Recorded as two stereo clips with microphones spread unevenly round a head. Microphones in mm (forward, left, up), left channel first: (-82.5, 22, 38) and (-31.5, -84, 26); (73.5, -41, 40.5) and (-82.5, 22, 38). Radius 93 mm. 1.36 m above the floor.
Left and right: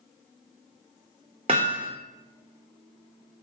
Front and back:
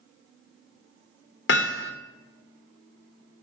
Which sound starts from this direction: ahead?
Hammering, at 1.5 s.